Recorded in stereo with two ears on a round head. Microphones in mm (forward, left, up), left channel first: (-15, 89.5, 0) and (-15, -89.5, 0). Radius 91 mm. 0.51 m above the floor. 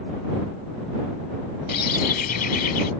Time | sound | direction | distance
1.7 | a bird | 45° left (ahead or behind) | ?